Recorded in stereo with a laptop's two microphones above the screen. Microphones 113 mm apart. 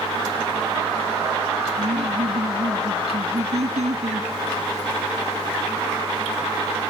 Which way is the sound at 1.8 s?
80° right.